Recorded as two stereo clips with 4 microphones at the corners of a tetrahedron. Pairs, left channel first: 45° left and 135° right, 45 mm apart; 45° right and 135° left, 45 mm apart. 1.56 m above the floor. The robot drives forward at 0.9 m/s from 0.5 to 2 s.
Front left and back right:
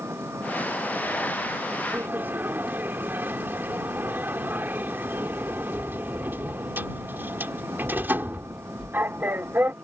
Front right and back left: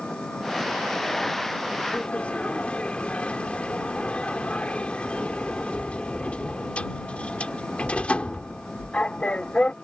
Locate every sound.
0.0 s an engine running: 115° right; by 9.8 s 120° right
1.9 s a sliding door: 105° right